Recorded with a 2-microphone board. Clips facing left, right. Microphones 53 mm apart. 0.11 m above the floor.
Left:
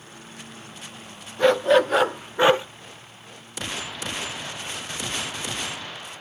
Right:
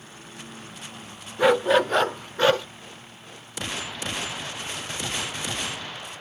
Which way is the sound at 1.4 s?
10° right (ahead or behind).